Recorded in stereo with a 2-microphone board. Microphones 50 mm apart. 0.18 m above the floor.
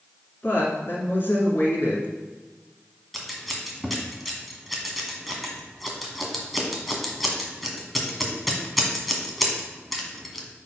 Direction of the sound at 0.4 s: 45° left (ahead or behind).